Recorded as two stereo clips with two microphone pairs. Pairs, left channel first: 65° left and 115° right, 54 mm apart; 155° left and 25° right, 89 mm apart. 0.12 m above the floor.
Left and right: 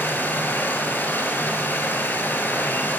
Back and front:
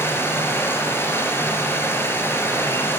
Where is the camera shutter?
I don't hear a camera shutter.